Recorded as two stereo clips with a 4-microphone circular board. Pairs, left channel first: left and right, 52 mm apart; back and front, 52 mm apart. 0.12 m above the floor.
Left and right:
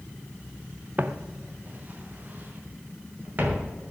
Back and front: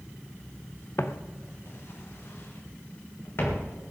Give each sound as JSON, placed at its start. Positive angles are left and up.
{"t": 1.0, "sound": "footsteps", "azimuth_deg": -145, "distance_m": 1.1}